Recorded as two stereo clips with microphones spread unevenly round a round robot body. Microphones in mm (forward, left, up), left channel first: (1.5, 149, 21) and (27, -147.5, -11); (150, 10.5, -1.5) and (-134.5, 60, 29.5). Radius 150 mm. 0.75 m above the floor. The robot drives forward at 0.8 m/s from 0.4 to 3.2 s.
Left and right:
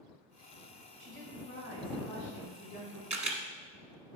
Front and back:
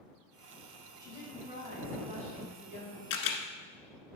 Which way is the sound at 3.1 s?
20° right.